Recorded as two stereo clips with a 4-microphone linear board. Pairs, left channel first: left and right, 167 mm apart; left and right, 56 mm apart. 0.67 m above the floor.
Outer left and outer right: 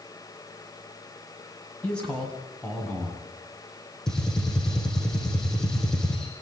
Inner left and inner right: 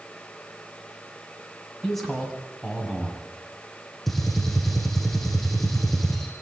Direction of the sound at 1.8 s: 5° left (ahead or behind).